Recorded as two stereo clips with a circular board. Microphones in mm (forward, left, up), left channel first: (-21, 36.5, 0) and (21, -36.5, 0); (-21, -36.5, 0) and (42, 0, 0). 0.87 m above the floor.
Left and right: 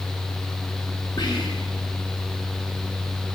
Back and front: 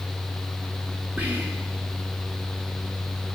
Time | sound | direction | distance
1.2 | whispering | 100° left | 1.3 m